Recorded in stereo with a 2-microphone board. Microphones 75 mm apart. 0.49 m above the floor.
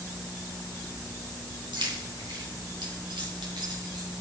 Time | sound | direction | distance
1.7 | keys jangling | 80° right | 3.5 m